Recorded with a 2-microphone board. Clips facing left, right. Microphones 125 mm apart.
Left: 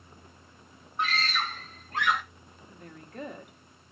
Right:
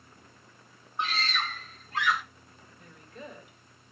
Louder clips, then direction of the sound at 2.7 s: Left 7 dB; 55° left (ahead or behind).